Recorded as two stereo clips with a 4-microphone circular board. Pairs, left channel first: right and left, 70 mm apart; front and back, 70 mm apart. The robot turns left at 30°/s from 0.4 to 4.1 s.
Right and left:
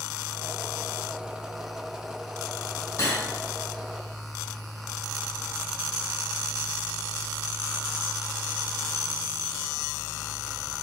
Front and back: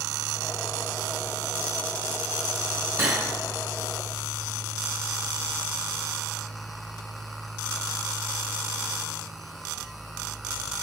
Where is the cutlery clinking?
130° right, 2.5 m; by 3.2 s 140° right, 2.5 m.